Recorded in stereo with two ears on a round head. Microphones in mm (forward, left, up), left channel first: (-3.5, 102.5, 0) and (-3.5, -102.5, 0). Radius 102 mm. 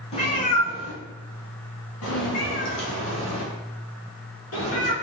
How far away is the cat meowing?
About 1.0 m.